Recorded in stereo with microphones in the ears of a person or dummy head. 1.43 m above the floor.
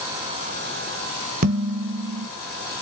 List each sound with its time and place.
1.4 s dishes clattering: 50° right (ahead or behind), 1.0 m